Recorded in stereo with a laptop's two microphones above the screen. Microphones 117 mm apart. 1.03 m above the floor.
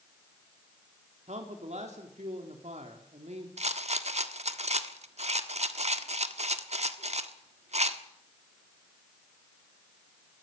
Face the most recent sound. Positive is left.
turn(degrees=-65)  # may be behind; listen again after turning